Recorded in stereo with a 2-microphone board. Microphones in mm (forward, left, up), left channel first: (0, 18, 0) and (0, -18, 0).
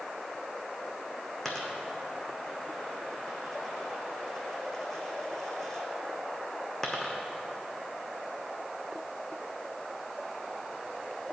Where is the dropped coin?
10° left (ahead or behind), 1.1 m.